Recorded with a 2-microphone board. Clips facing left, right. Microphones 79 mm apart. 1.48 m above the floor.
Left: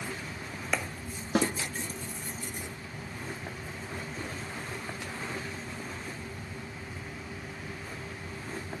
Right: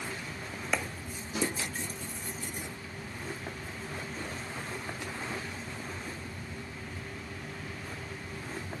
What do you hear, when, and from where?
1.4 s a snare drum: 60° left (ahead or behind), 1.7 m